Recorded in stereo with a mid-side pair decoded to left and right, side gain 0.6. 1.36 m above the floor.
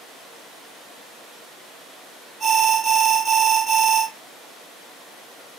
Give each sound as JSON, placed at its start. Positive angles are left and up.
{"t": 2.4, "sound": "an alarm", "azimuth_deg": -40, "distance_m": 3.5}